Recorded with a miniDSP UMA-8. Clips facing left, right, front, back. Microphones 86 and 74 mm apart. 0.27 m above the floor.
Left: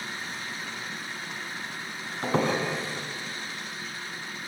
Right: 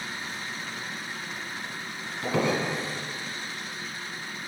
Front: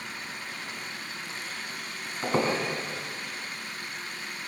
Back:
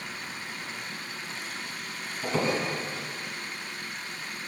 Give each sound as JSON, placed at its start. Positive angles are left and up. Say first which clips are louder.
{"t": 2.2, "sound": "a squeak", "louder": "even, front 2 dB", "azimuth_deg": 45, "distance_m": 1.1}